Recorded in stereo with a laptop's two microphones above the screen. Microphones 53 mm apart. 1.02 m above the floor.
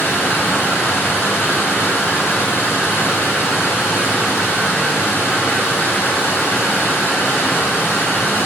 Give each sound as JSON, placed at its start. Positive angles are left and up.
{"t": 0.0, "sound": "running water", "side_deg": 45, "distance_m": 6.5}